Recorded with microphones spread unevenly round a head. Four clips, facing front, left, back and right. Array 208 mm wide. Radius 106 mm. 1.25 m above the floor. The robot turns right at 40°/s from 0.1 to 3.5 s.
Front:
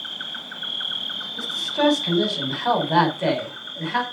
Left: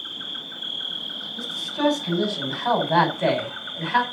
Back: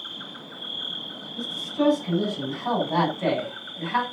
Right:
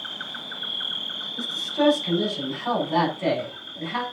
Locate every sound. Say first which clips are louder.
0.0 s an insect: right 3 dB, front 3 dB; 60° right, 1.9 m; by 4.1 s 75° left, 1.9 m
1.4 s a man speaking: right 2 dB, front 3 dB; 25° right, 5.5 m; by 4.0 s 60° left, 5.5 m